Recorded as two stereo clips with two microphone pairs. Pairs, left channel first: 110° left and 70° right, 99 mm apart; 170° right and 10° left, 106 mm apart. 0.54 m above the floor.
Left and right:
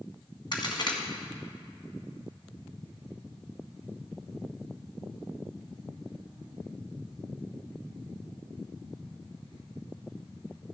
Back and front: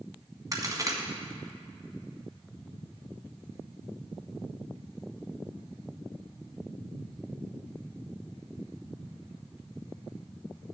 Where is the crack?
70° left, 1.7 m.